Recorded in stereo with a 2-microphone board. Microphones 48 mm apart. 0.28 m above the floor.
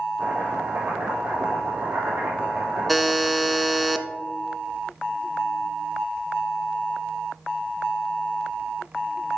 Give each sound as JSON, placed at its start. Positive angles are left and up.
{"t": 0.2, "sound": "chopping", "side_deg": -50, "distance_m": 5.5}
{"t": 2.9, "sound": "a buzzer", "side_deg": 0, "distance_m": 0.6}